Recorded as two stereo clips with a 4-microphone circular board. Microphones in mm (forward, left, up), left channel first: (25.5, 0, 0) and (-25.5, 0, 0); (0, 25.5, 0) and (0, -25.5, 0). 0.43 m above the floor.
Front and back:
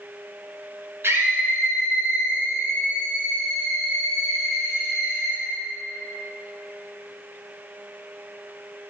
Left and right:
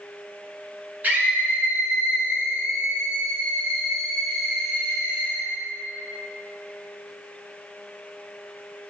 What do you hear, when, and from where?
1.0 s a scream: 145° right, 3 m; by 5.4 s 110° right, 4.5 m